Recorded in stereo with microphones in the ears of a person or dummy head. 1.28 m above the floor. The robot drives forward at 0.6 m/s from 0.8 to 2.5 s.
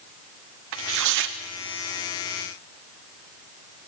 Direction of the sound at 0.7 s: 65° right (ahead or behind).